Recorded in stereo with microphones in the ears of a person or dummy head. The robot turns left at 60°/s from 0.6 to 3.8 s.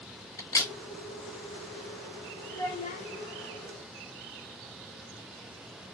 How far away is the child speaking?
About 0.9 m.